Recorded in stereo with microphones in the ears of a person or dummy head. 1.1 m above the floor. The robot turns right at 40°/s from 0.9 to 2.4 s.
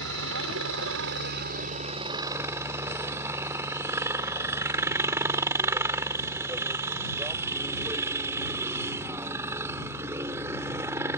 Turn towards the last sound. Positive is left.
turn(degrees=-15)